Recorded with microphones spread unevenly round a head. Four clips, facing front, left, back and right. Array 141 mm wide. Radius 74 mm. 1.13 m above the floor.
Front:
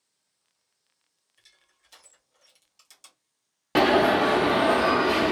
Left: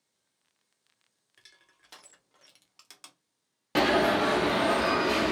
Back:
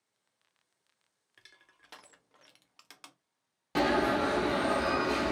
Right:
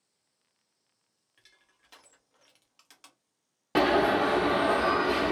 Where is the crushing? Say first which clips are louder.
Left 3 dB, back 5 dB; 155° left, 0.7 m.